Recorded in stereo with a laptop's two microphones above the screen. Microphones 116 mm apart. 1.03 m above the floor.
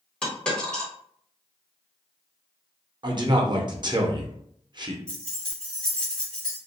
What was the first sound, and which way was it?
A dropped coin, 10° left (ahead or behind).